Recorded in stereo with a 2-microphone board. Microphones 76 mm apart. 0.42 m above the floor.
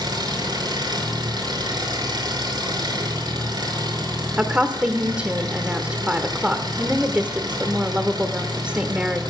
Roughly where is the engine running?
Right.